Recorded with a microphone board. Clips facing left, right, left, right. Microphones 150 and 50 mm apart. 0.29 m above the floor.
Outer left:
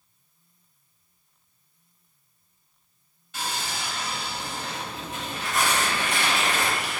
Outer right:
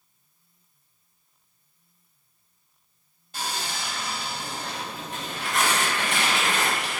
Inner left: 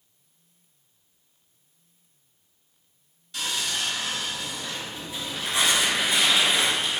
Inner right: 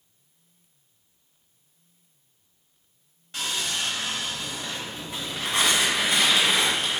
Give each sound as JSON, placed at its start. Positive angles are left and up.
{"t": 3.3, "sound": "sawing", "side_deg": -35, "distance_m": 1.3}
{"t": 5.1, "sound": "tearing paper", "side_deg": -70, "distance_m": 1.2}